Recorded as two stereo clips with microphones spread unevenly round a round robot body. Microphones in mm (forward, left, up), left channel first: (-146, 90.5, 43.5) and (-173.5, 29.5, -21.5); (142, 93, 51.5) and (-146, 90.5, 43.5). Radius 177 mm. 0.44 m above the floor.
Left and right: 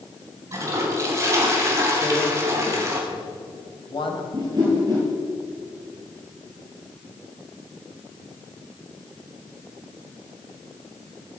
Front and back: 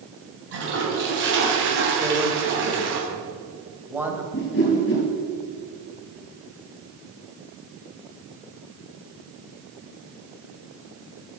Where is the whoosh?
60° right, 3 m.